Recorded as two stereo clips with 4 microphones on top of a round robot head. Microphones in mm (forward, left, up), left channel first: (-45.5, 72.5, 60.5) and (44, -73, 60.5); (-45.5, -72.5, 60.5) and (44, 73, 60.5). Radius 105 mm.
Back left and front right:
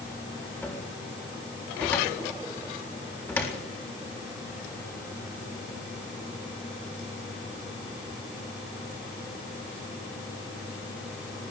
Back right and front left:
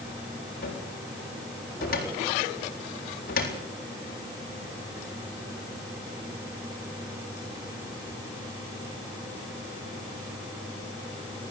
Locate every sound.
0.6 s a cupboard door: 160° right, 7 m